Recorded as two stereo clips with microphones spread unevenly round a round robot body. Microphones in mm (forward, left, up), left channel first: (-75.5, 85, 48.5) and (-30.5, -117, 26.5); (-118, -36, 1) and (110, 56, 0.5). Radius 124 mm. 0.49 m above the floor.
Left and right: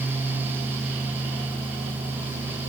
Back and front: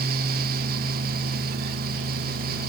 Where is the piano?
No piano in this recording.